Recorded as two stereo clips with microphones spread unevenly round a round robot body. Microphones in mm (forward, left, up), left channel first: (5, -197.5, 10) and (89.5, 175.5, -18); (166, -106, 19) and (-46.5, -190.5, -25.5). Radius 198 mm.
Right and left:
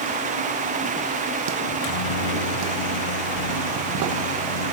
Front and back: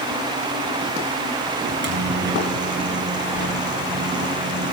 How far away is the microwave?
About 4.5 m.